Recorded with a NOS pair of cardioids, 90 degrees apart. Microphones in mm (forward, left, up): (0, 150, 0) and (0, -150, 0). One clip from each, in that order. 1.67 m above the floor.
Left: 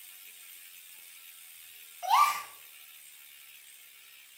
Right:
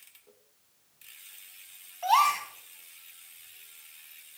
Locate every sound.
2.0 s a gasp: 25° right, 2.5 m